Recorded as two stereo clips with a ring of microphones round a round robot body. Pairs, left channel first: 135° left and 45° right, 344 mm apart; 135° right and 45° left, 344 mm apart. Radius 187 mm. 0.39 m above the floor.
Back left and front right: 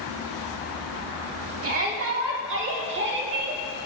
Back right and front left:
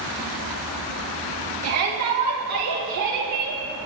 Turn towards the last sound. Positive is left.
turn(degrees=15)